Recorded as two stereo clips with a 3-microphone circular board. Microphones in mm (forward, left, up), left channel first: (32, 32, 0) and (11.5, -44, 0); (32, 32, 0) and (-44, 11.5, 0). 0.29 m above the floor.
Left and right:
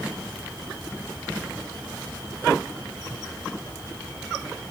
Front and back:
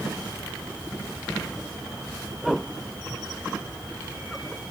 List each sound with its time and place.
Only background noise.